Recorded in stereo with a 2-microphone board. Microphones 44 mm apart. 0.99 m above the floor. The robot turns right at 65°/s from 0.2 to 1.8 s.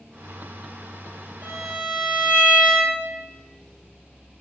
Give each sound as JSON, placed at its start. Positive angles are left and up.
{"t": 1.4, "sound": "a violin", "side_deg": -45, "distance_m": 0.8}